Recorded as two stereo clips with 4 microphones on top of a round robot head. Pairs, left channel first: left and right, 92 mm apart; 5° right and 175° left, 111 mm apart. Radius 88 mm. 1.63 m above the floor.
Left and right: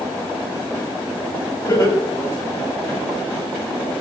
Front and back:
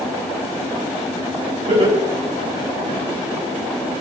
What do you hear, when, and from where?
1.7 s laughter: 145° left, 9.5 m; by 3.0 s 150° left, 8 m